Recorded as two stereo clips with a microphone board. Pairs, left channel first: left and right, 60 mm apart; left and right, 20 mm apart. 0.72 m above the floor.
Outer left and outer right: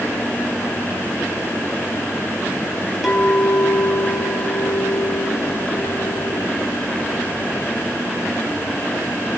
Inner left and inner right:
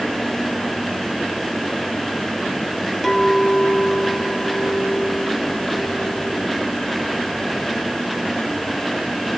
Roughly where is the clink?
Centre.